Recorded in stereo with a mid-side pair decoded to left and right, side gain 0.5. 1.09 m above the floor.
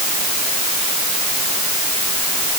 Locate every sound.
Only background noise.